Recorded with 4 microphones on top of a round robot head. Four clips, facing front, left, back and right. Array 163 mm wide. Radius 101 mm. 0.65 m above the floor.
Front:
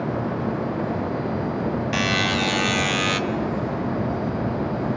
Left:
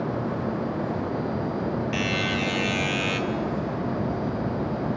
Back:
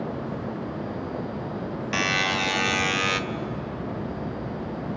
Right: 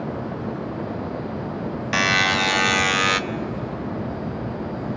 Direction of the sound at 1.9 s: 85° right.